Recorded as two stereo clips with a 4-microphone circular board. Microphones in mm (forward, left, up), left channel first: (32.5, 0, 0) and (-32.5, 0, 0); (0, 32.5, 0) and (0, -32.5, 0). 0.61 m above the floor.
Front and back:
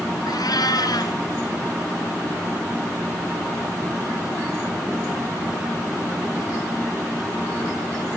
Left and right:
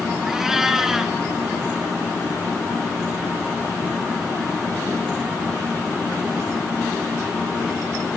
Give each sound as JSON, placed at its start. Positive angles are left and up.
{"t": 0.3, "sound": "a cat meowing", "azimuth_deg": -5, "distance_m": 2.5}